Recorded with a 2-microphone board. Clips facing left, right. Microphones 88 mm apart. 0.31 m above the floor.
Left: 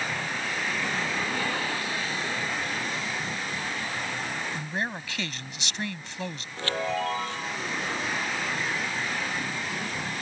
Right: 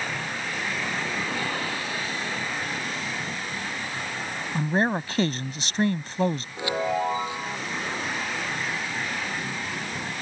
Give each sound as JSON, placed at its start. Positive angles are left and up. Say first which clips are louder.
{"t": 4.5, "sound": "a man speaking", "louder": "right 8 dB", "side_deg": -40}
{"t": 6.6, "sound": "a chime", "louder": "right 2 dB", "side_deg": -15}